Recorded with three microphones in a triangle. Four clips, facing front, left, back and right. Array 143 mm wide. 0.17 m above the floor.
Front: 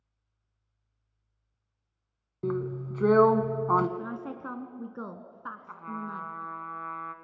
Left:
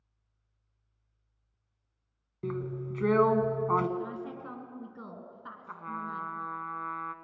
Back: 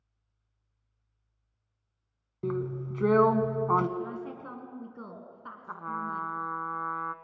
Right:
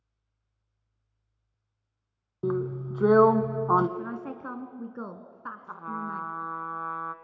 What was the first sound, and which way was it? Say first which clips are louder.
A drill: right 6 dB, front 1 dB; 80° right.